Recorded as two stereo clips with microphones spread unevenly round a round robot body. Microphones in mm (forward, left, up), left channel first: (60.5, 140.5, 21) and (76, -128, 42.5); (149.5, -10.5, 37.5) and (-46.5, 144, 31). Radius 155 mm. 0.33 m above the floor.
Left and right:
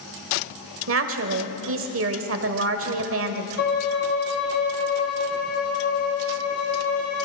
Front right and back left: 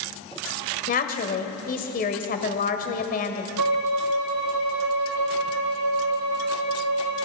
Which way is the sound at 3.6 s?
155° left.